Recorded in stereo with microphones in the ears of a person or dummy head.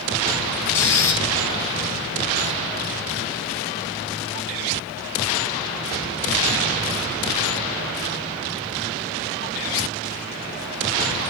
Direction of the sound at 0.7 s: 15° left (ahead or behind).